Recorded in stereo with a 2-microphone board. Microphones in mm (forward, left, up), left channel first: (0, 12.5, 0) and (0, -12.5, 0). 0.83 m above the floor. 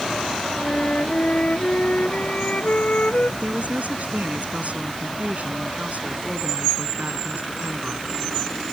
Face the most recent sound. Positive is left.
turn(degrees=-75)  # may be behind; listen again after turning